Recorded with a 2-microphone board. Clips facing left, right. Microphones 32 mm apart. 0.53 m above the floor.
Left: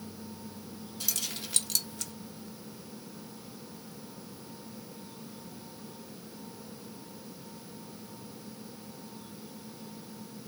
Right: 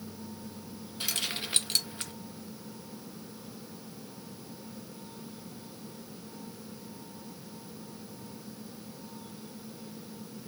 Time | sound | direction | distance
1.0 | keys jangling | 35° right (ahead or behind) | 0.5 m